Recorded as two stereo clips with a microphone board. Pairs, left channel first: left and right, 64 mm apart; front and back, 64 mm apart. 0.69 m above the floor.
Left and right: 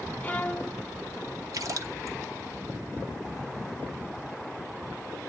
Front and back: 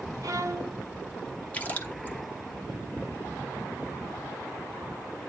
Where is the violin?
155° left, 0.7 m.